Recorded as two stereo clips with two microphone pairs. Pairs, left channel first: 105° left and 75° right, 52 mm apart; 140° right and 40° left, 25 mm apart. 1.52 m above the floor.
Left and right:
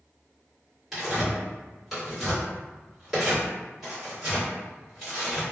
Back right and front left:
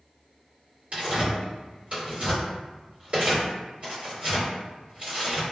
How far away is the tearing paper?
About 1.7 m.